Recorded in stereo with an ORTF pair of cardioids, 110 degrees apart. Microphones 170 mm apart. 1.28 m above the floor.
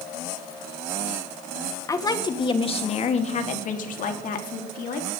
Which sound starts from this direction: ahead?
A woman speaking, at 1.9 s.